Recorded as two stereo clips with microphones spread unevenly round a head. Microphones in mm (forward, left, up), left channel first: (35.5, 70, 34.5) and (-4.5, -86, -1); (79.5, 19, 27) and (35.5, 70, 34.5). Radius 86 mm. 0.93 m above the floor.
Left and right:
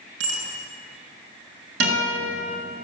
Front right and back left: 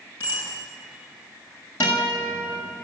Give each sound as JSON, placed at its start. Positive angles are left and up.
{"t": 0.2, "sound": "a bicycle bell", "azimuth_deg": -120, "distance_m": 7.0}
{"t": 1.8, "sound": "a guitar", "azimuth_deg": -115, "distance_m": 7.5}